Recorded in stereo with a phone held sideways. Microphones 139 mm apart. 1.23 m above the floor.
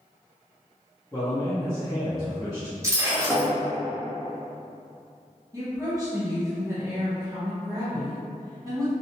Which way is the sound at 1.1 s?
25° left (ahead or behind).